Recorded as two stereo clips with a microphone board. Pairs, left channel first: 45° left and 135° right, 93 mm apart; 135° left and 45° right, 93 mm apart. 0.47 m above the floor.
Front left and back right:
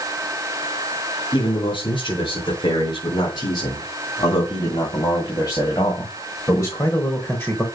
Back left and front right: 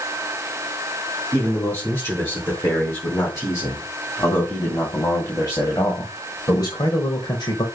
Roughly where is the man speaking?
Left.